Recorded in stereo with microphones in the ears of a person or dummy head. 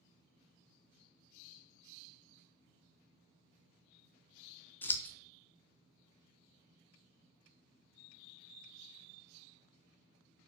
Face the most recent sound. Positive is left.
turn(degrees=15)  # may be behind; listen again after turning